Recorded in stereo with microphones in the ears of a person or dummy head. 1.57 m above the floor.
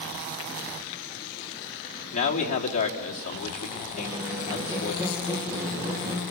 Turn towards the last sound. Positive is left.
turn(degrees=-15)  # may be behind; listen again after turning